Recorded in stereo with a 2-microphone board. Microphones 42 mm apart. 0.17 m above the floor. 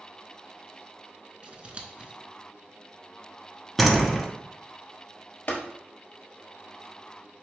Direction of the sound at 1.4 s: 30° right (ahead or behind).